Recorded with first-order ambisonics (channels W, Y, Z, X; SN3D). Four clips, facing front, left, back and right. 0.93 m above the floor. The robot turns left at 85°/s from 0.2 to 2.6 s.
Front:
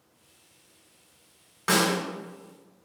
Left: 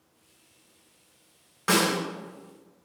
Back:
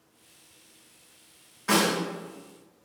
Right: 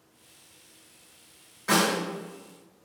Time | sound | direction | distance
1.7 | a snare drum | 45° left | 1.8 m